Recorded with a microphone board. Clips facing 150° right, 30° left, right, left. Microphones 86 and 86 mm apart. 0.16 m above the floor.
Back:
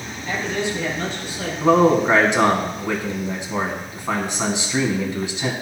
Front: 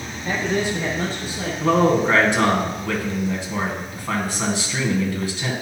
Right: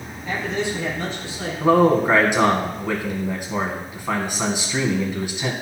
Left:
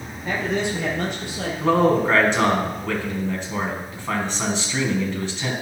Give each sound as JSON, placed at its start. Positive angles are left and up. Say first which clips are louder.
{"t": 0.2, "sound": "a man speaking", "louder": "front 2 dB, left 1 dB", "azimuth_deg": 65, "distance_m": 2.5}
{"t": 1.6, "sound": "a man speaking", "louder": "back 2 dB, right 2 dB", "azimuth_deg": -140, "distance_m": 1.6}